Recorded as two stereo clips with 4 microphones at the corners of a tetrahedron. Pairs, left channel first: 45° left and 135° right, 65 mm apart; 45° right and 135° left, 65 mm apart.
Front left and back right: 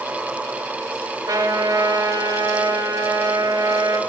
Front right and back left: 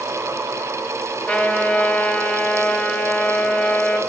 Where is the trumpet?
115° right, 3 m.